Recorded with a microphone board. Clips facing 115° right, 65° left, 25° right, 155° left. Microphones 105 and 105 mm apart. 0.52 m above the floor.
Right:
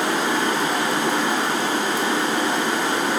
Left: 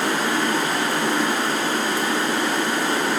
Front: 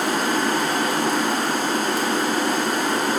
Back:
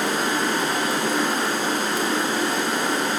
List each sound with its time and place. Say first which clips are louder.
0.0 s running water: right 1 dB, front 2 dB; 50° right, 0.8 m